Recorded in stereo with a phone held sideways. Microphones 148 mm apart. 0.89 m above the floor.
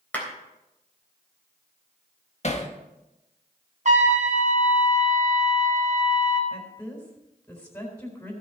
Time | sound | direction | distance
0.1 | a clap | 10° left (ahead or behind) | 3.5 m
2.4 | hammering | 50° left (ahead or behind) | 1.2 m
3.9 | a trumpet | 55° right (ahead or behind) | 1.5 m
6.5 | a woman speaking | 20° left (ahead or behind) | 3.5 m